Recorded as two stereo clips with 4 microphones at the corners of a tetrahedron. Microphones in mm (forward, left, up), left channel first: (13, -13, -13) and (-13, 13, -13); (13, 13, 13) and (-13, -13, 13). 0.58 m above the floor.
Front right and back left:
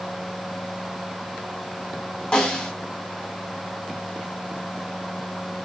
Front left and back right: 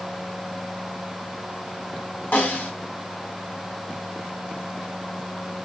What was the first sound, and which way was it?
A snare drum, 15° left.